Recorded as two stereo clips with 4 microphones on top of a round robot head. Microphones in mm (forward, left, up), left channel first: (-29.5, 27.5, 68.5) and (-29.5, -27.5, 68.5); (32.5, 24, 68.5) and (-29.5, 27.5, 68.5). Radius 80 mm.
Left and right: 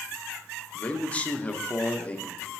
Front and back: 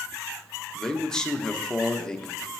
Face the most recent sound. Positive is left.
turn(degrees=65)